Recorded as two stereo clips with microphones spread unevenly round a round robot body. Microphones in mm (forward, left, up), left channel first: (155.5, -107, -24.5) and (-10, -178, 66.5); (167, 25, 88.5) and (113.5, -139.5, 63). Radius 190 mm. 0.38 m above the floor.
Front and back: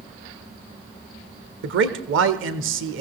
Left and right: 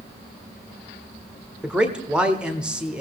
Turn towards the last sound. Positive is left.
turn(degrees=180)